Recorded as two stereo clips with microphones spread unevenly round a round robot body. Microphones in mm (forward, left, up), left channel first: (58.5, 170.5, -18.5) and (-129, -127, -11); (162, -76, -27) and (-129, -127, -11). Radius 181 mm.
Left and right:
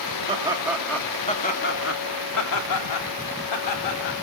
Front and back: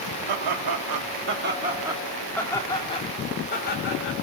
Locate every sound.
0.3 s laughter: 165° left, 2 m; by 4.2 s 65° left, 4 m